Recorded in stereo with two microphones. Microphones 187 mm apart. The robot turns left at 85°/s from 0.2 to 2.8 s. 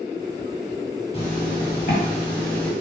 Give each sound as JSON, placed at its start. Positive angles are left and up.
{"t": 1.1, "sound": "a zipper", "azimuth_deg": 135, "distance_m": 2.0}